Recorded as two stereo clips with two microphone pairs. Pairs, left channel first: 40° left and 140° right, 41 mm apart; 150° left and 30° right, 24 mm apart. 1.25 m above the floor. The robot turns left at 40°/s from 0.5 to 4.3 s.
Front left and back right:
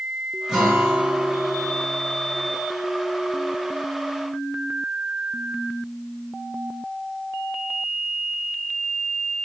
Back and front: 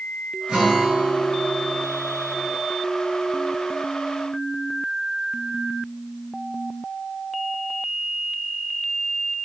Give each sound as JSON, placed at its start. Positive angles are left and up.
{"t": 0.5, "sound": "a guitar", "azimuth_deg": -60, "distance_m": 3.0}